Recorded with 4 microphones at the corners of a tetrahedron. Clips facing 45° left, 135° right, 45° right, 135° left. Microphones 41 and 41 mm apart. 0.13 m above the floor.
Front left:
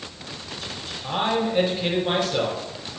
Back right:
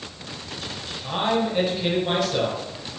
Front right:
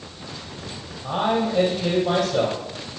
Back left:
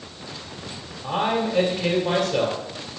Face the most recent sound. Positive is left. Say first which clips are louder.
# even, front right 1 dB
turn(degrees=130)